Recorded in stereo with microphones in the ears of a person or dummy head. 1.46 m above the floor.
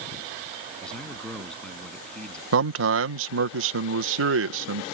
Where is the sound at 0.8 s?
5° left (ahead or behind).